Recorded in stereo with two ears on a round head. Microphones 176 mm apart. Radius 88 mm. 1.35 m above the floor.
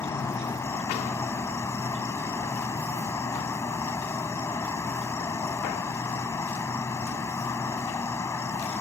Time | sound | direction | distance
0.0 | an insect | 15° left (ahead or behind) | ?